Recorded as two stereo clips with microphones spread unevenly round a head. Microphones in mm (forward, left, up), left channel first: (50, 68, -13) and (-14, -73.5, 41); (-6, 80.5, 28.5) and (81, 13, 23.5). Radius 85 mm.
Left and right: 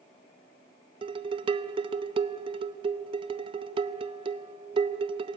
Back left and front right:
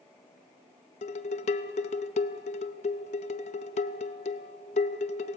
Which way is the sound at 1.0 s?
Straight behind.